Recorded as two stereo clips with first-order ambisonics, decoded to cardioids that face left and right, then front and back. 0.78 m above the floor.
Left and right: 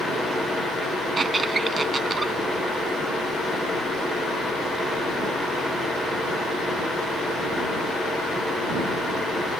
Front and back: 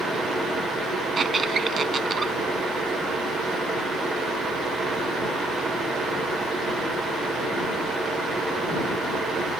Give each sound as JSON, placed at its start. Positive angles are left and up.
{"t": 1.2, "sound": "a squeak", "azimuth_deg": -145}